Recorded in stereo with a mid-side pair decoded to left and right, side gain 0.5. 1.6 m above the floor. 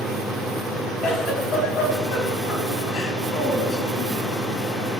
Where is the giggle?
65° left, 2.5 m.